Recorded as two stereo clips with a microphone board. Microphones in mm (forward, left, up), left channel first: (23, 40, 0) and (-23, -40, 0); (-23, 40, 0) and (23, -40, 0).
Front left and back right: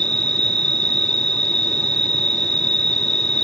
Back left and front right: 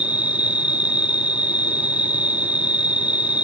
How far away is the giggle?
No giggle in this recording.